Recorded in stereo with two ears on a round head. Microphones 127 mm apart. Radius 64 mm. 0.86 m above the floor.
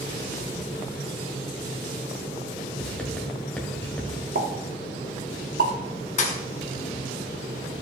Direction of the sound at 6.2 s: 50° left (ahead or behind).